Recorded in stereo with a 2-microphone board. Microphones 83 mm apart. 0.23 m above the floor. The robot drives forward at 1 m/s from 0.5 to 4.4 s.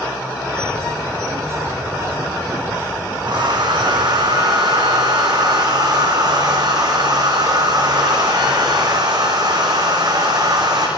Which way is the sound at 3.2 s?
60° right (ahead or behind).